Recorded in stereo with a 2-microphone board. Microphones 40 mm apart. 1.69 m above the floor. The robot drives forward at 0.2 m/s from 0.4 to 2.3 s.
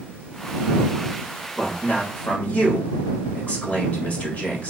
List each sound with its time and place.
1.6 s a man speaking: 45° left (ahead or behind), 0.9 m; by 4.7 s 40° left (ahead or behind), 1.0 m